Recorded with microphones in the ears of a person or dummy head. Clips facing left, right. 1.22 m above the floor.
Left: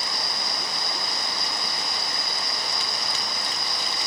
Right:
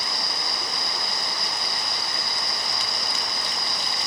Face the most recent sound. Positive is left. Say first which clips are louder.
# even
turn(degrees=-15)  # may be behind; listen again after turning